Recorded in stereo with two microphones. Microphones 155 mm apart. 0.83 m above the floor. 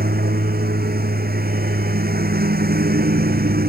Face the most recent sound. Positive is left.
turn(degrees=-80)